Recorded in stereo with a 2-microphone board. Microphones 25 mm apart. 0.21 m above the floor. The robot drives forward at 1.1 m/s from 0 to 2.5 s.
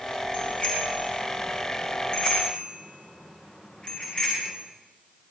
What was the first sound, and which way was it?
A bicycle bell, 50° left (ahead or behind).